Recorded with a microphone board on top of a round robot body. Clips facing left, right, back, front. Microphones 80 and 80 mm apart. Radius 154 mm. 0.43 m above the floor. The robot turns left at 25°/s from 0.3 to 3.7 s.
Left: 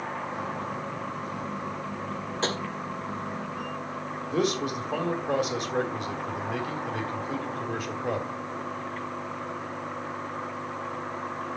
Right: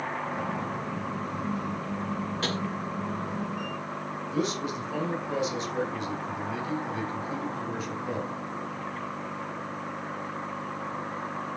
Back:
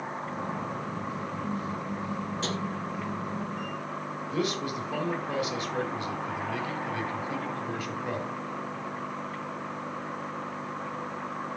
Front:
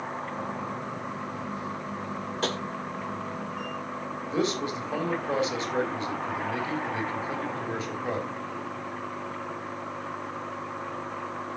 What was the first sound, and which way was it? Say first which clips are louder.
Tapping: left 4 dB, front 5 dB; 30° left.